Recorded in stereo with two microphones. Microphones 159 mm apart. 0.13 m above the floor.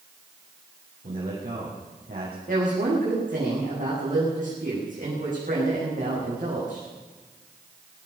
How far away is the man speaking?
About 6.5 m.